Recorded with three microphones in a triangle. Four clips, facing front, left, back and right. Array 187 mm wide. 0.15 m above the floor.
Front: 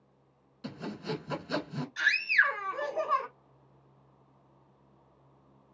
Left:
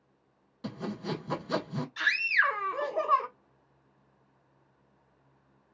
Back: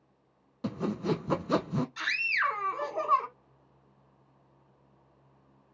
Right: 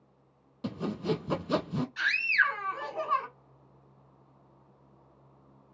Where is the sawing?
155° right, 0.6 m.